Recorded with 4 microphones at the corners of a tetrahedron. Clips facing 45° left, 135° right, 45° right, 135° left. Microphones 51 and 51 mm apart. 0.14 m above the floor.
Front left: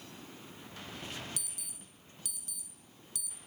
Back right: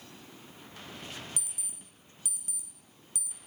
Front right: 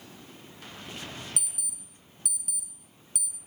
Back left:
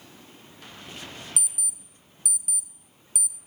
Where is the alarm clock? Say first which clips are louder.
Back right 2 dB, back left 4 dB; 155° right, 0.6 m.